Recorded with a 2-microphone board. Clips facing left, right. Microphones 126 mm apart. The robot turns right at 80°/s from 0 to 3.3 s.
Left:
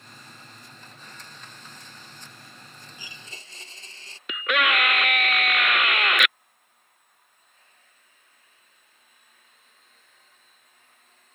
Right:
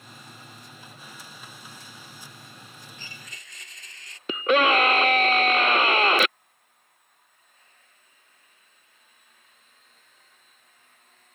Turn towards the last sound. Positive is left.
turn(degrees=-30)  # may be behind; listen again after turning